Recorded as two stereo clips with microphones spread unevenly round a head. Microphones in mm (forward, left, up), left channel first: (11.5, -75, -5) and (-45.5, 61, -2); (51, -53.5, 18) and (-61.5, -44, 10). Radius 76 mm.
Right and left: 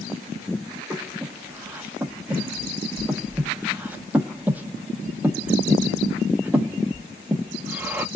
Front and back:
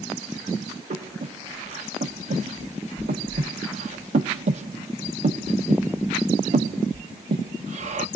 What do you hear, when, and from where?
0.9 s breathing: 165° right, 0.7 m